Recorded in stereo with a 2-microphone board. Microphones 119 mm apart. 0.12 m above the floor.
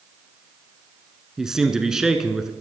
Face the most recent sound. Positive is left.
turn(degrees=-5)  # may be behind; listen again after turning